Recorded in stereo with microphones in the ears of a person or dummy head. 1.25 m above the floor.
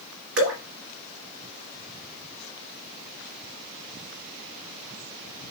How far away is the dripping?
About 2.5 m.